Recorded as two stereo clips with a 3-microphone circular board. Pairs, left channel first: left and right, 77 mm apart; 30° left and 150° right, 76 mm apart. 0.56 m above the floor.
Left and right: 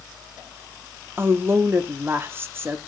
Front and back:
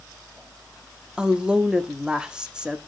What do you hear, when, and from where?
1.2 s a woman speaking: 80° right, 0.9 m